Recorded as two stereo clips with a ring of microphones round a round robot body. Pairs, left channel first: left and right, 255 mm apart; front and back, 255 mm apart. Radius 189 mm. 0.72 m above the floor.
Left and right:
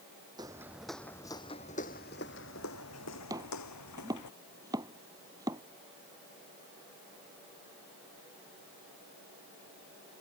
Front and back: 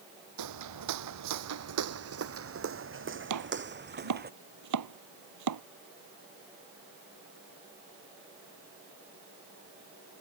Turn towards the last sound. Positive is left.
turn(degrees=-170)